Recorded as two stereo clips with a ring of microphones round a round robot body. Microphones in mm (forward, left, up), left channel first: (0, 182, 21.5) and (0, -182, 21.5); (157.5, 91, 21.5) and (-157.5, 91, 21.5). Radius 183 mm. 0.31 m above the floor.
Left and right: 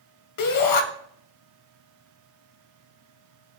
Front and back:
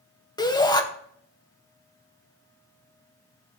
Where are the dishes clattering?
I don't hear dishes clattering.